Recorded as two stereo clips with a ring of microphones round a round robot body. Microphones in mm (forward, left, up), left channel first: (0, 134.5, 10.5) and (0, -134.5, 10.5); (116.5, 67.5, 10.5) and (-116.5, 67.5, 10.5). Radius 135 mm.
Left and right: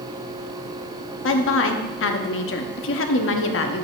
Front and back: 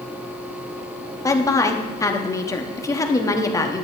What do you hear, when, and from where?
1.2 s a woman speaking: 75° left, 0.9 m